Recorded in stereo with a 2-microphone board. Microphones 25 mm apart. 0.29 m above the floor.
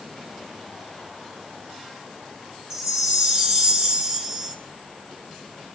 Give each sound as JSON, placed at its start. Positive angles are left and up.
{"t": 2.7, "sound": "a chime", "side_deg": -25, "distance_m": 4.5}